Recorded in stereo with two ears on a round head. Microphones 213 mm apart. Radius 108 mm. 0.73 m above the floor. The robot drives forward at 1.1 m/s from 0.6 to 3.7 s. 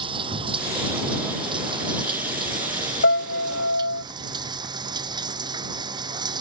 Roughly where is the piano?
Left.